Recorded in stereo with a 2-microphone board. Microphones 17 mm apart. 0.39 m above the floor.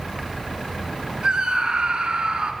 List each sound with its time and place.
1.2 s a scream: 70° right (ahead or behind), 3 m